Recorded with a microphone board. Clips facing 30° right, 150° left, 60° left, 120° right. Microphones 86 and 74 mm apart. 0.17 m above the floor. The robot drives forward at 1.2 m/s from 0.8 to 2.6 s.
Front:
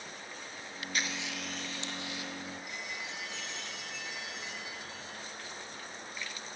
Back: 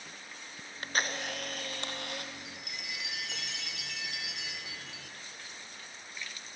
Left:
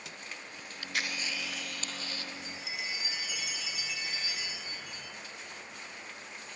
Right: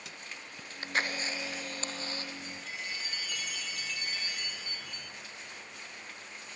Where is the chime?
135° left, 1.7 m; by 5.2 s 140° left, 2.0 m.